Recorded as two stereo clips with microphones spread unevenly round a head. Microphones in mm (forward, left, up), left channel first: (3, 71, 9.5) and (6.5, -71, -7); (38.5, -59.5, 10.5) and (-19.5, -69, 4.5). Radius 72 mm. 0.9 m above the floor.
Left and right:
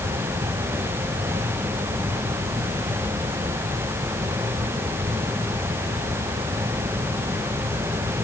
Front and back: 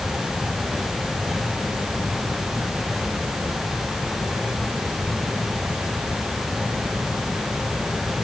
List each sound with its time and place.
Only background noise.